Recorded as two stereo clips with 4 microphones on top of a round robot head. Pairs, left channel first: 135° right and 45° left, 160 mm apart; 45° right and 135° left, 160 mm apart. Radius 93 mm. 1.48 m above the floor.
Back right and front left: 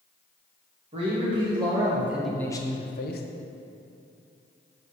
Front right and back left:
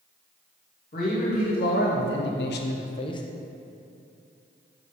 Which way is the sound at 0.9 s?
10° right.